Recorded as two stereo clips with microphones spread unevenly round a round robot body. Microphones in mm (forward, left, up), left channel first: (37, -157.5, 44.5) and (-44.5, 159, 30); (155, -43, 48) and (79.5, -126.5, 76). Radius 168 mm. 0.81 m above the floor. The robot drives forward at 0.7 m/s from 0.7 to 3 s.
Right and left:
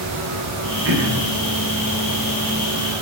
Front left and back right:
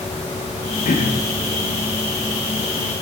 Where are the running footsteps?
No running footsteps in this recording.